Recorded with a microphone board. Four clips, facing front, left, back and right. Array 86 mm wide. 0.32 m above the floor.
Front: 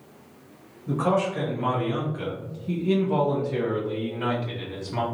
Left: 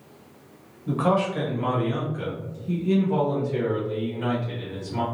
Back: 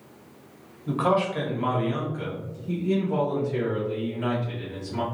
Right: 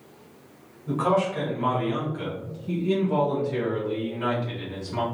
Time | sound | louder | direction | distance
0.9 | a man speaking | even, even | 160° left | 1.1 m